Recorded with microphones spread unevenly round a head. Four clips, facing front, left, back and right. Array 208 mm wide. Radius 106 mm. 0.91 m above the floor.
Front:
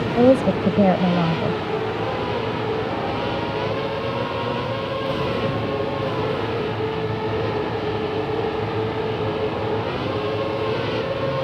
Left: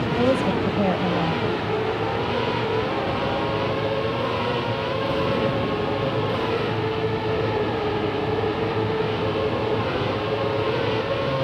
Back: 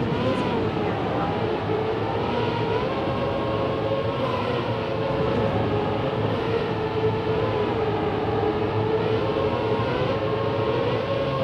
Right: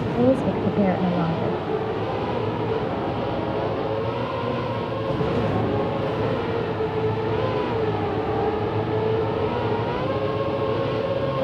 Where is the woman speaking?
10° right.